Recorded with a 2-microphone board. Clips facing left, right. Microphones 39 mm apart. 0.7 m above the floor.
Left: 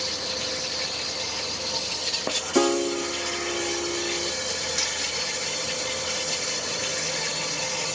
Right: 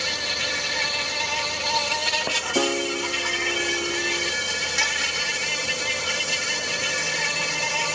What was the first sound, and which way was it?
An insect, 55° right (ahead or behind).